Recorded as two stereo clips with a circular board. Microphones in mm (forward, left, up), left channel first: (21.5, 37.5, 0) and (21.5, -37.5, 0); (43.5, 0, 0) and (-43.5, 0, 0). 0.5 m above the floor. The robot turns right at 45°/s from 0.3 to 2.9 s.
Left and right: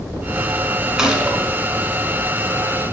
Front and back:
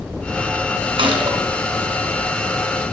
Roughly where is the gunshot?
Behind.